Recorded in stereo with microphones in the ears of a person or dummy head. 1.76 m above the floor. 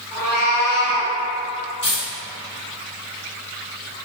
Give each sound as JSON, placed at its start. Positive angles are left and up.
{"t": 0.1, "sound": "a cat meowing", "side_deg": 30, "distance_m": 1.8}
{"t": 1.8, "sound": "a dropped coin", "side_deg": 30, "distance_m": 1.9}